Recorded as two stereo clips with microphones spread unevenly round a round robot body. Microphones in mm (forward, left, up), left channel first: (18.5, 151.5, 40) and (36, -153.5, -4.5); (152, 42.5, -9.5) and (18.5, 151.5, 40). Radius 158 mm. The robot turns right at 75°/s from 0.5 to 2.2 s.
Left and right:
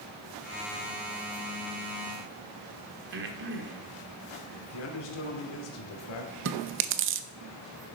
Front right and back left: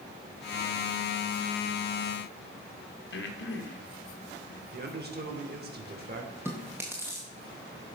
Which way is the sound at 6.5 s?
130° right.